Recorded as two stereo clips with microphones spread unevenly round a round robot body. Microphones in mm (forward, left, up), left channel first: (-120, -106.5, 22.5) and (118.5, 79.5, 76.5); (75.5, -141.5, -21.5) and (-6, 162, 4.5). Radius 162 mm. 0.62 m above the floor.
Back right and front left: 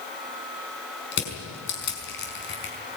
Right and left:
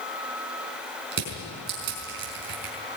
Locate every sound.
1.1 s crushing: 165° left, 5 m